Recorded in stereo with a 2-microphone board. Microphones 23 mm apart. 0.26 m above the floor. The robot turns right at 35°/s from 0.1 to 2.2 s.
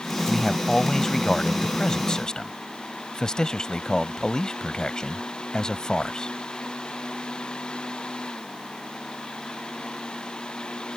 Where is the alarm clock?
I don't hear an alarm clock.